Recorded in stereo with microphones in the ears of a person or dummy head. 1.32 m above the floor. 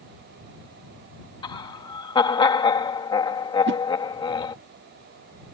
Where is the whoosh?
60° right (ahead or behind).